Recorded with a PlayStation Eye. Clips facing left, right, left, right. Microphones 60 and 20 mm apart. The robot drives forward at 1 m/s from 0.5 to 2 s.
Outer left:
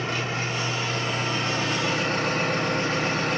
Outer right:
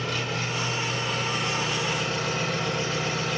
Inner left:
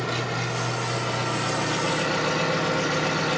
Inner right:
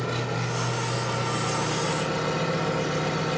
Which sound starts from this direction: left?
An engine running, at 0.0 s.